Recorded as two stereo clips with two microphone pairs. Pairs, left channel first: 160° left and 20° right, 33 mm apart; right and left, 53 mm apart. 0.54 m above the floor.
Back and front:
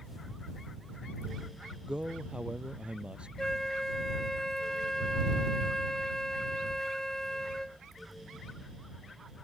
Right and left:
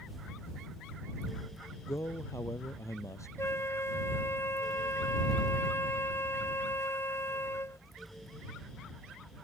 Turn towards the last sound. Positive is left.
turn(degrees=-120)